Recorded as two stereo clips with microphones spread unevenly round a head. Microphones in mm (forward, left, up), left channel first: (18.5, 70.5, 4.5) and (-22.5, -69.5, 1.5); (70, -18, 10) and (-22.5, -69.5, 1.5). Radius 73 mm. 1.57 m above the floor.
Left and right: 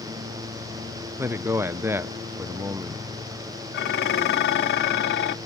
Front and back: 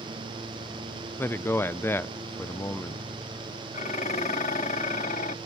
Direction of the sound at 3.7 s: 65° left.